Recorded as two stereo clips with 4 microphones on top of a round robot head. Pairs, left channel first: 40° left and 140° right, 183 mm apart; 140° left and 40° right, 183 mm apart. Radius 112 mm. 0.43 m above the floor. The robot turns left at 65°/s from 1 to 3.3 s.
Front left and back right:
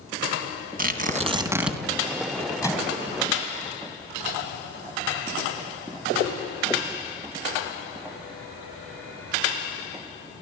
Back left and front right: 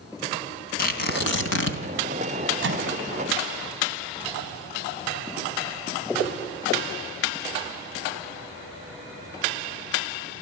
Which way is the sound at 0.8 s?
Straight behind.